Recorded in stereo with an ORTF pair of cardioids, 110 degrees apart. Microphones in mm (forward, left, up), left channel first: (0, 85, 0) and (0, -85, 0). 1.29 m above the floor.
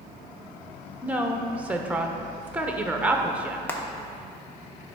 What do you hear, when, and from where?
1.0 s a woman speaking: 10° right, 0.9 m
3.7 s frying: 15° left, 1.0 m